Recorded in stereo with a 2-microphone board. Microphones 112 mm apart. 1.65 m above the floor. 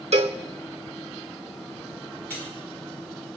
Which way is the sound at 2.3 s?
15° left (ahead or behind).